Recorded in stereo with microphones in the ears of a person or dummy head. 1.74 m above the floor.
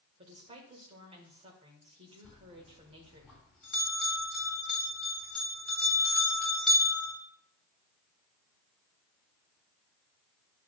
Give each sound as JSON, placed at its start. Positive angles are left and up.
{"t": 0.2, "sound": "a woman speaking", "side_deg": -35, "distance_m": 1.5}
{"t": 2.2, "sound": "a bell", "side_deg": 0, "distance_m": 2.5}